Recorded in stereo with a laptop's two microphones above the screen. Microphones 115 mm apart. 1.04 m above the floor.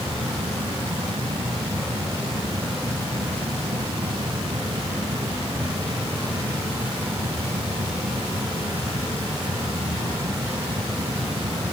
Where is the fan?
75° right (ahead or behind).